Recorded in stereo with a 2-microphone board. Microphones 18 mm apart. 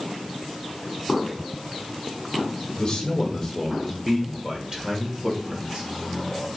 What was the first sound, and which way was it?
A man speaking, 40° left (ahead or behind).